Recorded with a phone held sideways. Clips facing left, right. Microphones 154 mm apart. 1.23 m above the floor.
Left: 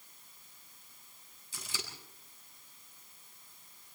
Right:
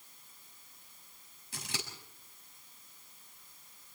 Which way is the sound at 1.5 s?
70° right (ahead or behind).